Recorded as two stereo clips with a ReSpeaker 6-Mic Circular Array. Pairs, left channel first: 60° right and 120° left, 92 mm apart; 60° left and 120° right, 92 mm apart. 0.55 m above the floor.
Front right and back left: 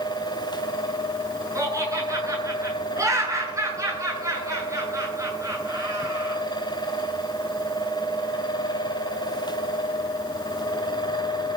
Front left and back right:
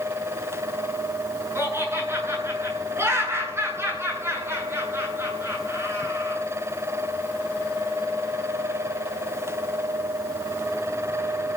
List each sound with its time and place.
1.6 s laughter: 175° left, 9 m